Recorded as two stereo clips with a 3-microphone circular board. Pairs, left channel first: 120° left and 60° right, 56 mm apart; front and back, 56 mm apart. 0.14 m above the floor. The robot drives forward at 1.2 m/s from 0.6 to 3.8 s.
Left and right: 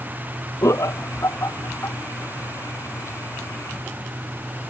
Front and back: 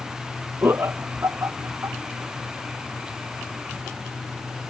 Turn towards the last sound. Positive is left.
turn(degrees=160)